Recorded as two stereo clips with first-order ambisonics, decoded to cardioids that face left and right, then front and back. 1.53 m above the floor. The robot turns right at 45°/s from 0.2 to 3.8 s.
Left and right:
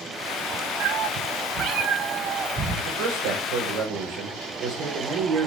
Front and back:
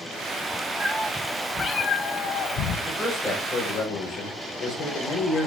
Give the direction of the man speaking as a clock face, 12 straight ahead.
3 o'clock.